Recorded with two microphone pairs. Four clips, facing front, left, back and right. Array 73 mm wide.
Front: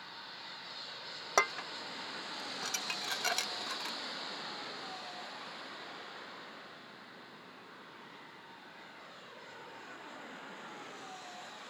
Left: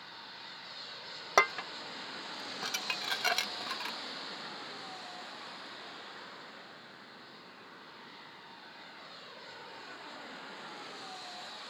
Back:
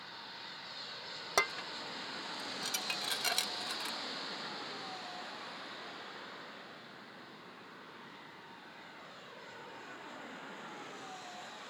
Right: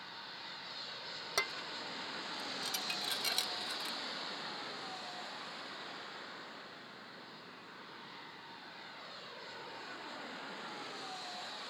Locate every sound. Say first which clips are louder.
1.4 s dishes clattering: left 12 dB, front 3 dB; 70° left